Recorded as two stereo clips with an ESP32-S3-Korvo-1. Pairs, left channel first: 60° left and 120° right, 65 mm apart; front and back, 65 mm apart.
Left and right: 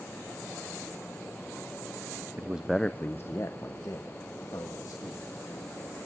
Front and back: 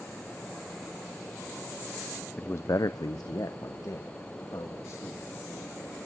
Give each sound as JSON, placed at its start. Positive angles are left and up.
{"t": 2.4, "sound": "a man speaking", "azimuth_deg": -65, "distance_m": 0.6}